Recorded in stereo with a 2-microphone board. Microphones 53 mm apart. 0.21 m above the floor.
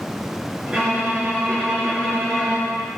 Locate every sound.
0.7 s a violin: 15° right (ahead or behind), 2.5 m